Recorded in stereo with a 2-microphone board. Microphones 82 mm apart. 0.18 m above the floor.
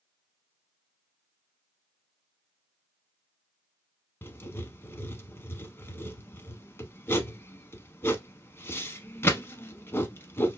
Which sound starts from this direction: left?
Writing, at 4.2 s.